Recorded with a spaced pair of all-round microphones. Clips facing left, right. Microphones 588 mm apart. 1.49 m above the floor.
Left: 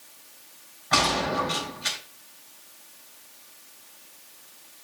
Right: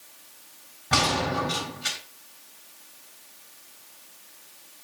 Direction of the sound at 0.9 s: 50° right (ahead or behind).